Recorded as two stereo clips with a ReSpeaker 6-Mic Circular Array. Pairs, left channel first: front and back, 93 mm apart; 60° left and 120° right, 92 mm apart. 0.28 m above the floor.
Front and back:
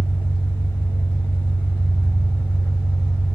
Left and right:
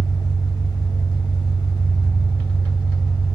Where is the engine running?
60° left, 0.8 m.